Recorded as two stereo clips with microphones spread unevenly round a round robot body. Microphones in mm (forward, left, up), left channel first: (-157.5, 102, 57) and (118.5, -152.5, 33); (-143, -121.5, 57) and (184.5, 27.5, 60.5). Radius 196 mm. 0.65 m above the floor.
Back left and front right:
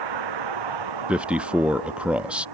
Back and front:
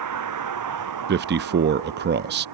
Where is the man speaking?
35° left.